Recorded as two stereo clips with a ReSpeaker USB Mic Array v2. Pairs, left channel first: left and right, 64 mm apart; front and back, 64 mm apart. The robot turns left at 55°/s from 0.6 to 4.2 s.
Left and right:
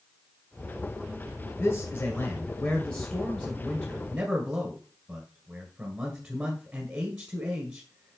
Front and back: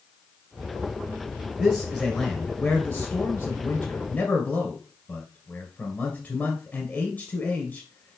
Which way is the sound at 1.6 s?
125° left.